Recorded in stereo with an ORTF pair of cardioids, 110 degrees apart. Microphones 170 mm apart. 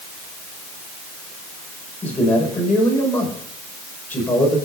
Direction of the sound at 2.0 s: 10° left.